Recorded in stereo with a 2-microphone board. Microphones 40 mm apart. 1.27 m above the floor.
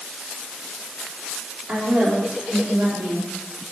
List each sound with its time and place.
1.7 s a woman speaking: 30° right (ahead or behind), 4 m; by 3.3 s 55° right (ahead or behind), 2.5 m